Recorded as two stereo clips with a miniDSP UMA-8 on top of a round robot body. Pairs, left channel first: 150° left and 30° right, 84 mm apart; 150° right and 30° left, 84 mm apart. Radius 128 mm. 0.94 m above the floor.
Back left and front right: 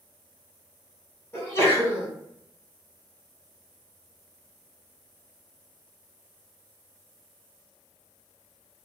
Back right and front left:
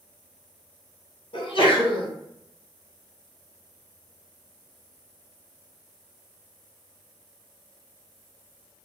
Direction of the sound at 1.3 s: 145° right.